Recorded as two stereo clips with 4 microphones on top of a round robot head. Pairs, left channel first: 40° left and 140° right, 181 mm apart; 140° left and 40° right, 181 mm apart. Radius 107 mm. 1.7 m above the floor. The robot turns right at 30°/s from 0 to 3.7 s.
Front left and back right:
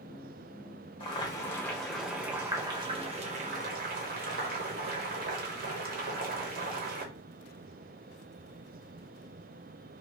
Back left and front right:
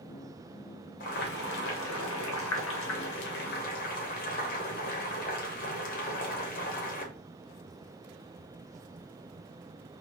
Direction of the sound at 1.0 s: 100° left.